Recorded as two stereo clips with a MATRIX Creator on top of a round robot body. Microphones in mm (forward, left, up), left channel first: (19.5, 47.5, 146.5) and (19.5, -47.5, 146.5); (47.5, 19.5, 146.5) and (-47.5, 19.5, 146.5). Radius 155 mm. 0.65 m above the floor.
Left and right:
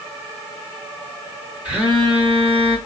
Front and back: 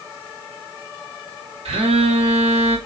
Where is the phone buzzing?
170° right, 1.3 m.